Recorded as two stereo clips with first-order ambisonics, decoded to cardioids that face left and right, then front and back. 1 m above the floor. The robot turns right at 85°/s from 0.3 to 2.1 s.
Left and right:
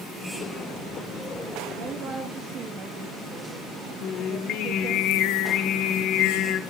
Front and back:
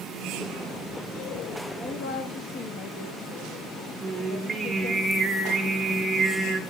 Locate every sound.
1.8 s a woman speaking: 60° right, 1.5 m; by 5.0 s 30° right, 1.5 m
4.0 s singing: 100° left, 1.1 m